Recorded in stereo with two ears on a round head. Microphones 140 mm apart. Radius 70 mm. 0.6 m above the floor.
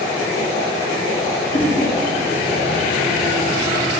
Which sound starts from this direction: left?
A whoosh, at 1.5 s.